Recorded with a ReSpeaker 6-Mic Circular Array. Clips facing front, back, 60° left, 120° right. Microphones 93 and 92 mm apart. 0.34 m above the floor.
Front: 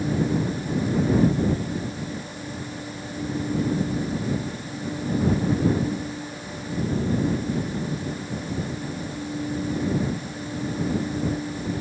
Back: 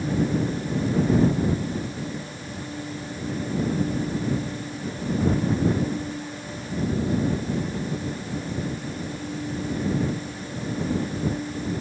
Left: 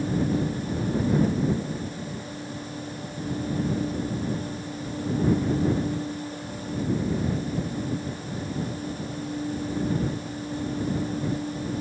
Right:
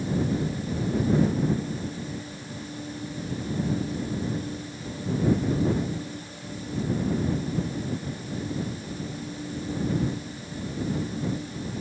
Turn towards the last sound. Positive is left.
No sound to turn to.